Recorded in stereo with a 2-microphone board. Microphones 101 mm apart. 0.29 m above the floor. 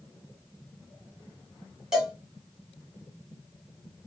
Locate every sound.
1.9 s a cowbell: 5° right (ahead or behind), 1.4 m